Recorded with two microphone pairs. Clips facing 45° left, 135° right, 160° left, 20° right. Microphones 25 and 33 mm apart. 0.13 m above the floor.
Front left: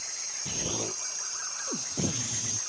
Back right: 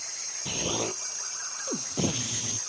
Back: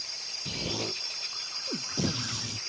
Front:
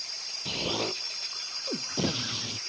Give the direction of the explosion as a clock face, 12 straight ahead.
2 o'clock.